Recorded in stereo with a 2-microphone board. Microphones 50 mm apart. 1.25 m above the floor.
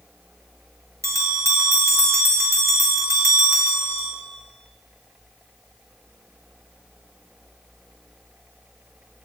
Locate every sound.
1.0 s a bell: 75° right (ahead or behind), 1.8 m